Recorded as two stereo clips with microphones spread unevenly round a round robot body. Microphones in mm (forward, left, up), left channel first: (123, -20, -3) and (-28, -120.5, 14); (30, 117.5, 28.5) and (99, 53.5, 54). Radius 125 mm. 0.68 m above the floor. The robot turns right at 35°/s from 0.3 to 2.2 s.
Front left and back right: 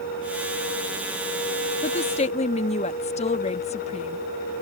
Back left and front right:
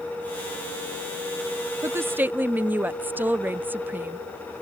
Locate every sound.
1.8 s a woman speaking: 25° left; by 4.2 s 40° left